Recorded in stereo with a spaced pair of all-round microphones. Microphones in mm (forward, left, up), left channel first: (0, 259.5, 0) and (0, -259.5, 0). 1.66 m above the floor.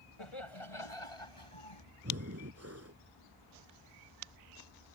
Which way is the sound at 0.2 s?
70° left (ahead or behind).